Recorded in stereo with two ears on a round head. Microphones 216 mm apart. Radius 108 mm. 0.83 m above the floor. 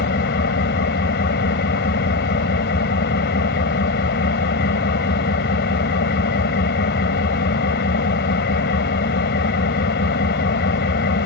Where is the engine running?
50° left (ahead or behind).